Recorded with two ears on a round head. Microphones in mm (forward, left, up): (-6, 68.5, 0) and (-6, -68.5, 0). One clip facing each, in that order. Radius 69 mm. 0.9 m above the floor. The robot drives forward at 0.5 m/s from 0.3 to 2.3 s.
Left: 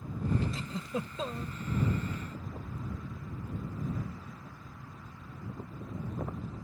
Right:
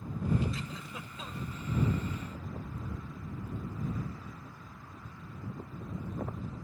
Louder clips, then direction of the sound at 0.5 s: Left 6 dB; 30° left (ahead or behind).